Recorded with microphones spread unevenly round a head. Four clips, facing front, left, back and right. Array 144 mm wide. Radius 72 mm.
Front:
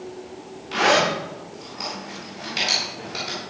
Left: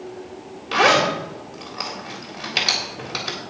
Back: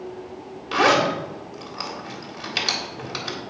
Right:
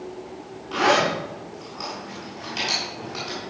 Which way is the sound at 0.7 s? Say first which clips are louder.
Left 3 dB, back 1 dB; 100° left.